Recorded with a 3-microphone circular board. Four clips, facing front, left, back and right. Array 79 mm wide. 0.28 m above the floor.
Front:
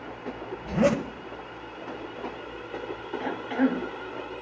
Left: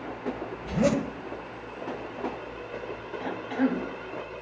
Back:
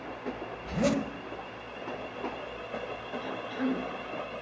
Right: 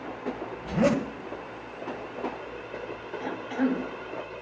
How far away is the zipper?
About 1.0 m.